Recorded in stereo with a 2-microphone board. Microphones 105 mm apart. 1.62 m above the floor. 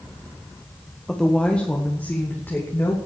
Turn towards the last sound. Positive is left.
turn(degrees=25)  # may be behind; listen again after turning